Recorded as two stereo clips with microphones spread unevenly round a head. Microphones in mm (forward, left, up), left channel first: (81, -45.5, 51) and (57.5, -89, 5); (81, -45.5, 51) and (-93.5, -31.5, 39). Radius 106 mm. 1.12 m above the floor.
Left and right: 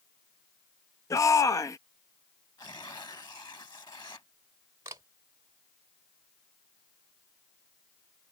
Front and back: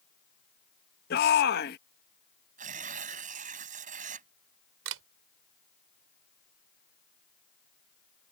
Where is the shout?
35° left.